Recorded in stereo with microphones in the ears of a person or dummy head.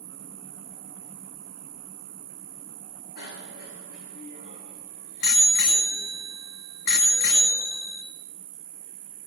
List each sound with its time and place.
0.0 s an insect: 40° right (ahead or behind), 1.5 m
3.2 s a bicycle bell: 70° left (ahead or behind), 4 m